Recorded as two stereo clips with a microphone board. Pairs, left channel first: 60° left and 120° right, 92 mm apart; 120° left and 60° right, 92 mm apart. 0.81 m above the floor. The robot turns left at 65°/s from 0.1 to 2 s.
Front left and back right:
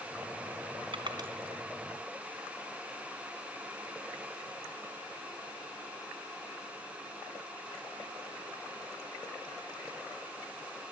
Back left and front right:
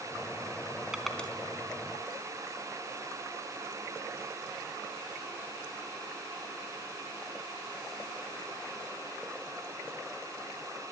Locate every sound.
0.9 s crushing: 145° right, 4 m; by 1.3 s 165° right, 4 m